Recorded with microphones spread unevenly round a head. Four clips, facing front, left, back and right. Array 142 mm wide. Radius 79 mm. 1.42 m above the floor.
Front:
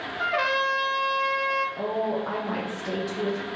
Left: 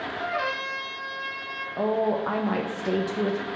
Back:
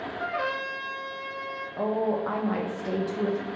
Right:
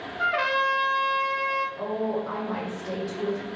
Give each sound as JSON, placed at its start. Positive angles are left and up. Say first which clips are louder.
{"t": 0.2, "sound": "a trumpet", "louder": "right 6 dB, front 6 dB", "azimuth_deg": -30, "distance_m": 1.0}
{"t": 1.8, "sound": "a woman speaking", "louder": "left 4 dB, back 1 dB", "azimuth_deg": 70, "distance_m": 0.6}